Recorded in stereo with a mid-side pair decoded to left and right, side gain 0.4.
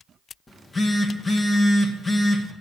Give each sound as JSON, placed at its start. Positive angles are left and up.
{"t": 0.5, "sound": "a phone buzzing", "azimuth_deg": 35, "distance_m": 1.7}